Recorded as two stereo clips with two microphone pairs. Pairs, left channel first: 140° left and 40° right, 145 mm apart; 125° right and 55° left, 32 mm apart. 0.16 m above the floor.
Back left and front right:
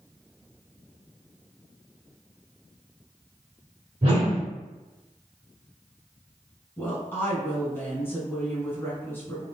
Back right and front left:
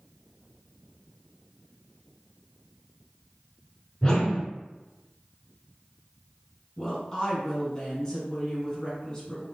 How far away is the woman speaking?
About 1.3 m.